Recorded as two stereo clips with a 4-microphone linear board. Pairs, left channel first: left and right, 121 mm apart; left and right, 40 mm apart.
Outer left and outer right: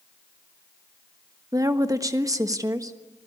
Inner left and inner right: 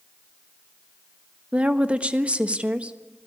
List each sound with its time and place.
1.5 s a woman speaking: 30° right (ahead or behind), 1.3 m